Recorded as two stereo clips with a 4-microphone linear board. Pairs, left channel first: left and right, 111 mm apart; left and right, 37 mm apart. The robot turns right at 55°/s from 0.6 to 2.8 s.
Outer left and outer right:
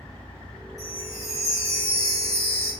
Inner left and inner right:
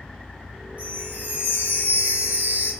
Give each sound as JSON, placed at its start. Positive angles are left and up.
{"t": 0.8, "sound": "a chime", "azimuth_deg": -150, "distance_m": 6.5}